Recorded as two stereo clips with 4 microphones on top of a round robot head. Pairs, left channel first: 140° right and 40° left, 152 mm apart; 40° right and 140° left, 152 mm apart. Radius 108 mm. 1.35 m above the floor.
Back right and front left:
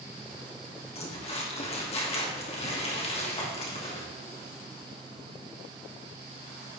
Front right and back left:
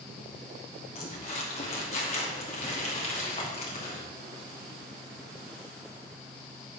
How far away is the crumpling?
About 2.5 m.